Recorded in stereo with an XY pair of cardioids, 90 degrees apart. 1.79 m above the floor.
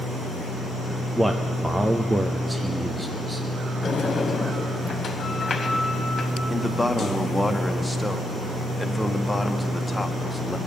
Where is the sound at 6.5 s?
5° left, 1.3 m.